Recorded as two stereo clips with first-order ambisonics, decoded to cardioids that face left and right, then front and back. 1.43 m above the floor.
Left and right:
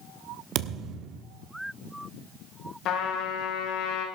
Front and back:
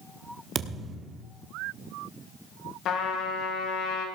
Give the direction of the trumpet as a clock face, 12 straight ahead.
10 o'clock.